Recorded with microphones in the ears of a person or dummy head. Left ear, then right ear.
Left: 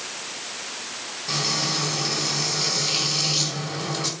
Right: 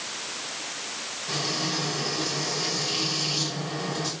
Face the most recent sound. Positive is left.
turn(degrees=30)  # may be behind; listen again after turning